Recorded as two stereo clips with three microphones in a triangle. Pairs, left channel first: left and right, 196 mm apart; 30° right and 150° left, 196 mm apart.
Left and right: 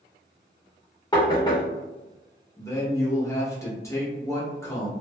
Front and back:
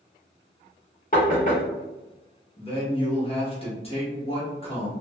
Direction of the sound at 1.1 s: 20° left.